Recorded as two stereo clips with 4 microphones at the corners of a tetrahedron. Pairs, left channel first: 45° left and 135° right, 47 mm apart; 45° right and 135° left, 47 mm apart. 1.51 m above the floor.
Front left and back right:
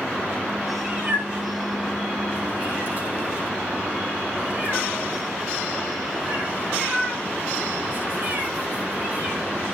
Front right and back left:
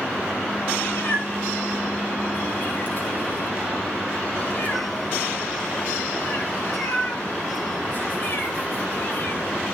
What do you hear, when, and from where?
0.8 s a cat meowing: 90° right, 4.5 m